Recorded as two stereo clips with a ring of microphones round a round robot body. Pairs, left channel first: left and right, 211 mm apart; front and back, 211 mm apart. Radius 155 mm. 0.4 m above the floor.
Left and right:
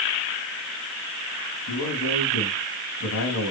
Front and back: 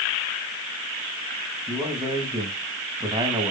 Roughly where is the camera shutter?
No camera shutter in this recording.